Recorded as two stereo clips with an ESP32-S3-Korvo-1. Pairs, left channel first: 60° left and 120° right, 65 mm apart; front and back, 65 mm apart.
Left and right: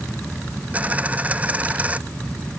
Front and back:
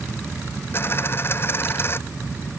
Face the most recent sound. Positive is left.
turn(degrees=-50)